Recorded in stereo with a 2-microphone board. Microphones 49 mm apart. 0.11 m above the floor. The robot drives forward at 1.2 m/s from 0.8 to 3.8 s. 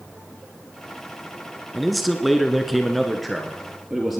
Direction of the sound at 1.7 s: Centre (ahead or behind).